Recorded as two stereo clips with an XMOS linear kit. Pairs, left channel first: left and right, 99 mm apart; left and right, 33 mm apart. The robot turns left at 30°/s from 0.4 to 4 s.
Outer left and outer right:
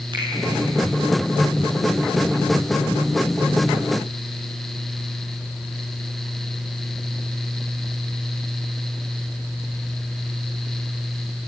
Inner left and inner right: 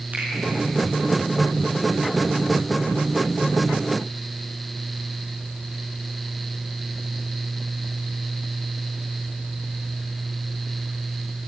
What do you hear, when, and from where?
0.1 s a finger snap: 50° right (ahead or behind), 4 m